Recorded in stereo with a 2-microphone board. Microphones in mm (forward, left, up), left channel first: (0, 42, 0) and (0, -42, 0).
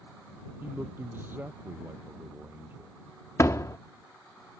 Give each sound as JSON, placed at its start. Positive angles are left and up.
{"t": 0.6, "sound": "a man speaking", "side_deg": -25}
{"t": 3.4, "sound": "a door slam", "side_deg": 35}